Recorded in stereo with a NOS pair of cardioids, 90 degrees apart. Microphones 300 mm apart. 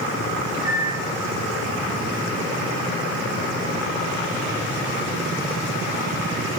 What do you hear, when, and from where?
0.5 s a microwave: 60° right, 0.7 m